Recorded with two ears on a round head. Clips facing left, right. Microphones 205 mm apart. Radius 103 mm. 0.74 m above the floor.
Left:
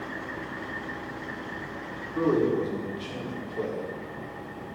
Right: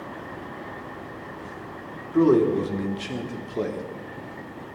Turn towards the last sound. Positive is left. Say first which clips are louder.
# right 6 dB
turn(degrees=-65)  # may be behind; listen again after turning